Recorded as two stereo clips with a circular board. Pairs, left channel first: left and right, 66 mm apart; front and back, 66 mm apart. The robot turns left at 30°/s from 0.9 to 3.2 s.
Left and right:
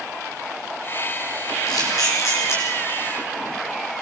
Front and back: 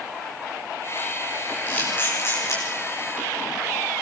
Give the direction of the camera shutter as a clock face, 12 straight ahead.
10 o'clock.